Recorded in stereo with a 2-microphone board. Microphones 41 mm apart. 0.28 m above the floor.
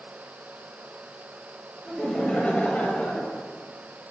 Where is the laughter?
15° left (ahead or behind), 1.2 m; by 3.4 s 45° left (ahead or behind), 1.6 m.